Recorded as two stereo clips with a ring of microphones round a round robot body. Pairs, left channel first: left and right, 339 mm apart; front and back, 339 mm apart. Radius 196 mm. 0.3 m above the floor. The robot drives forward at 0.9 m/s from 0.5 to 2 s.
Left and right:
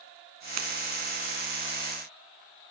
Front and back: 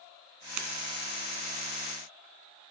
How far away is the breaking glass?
About 2 m.